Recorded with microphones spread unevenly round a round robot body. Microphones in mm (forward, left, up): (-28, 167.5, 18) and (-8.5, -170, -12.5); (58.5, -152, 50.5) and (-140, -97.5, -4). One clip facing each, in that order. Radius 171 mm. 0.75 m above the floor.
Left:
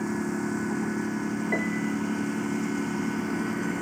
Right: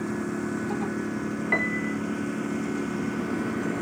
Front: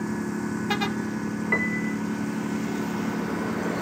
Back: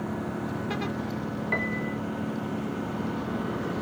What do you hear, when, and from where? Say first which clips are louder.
0.0 s a lawn mower: left 1 dB, front 3 dB; 15° left
1.5 s a piano: left 1 dB, front 3 dB; 25° right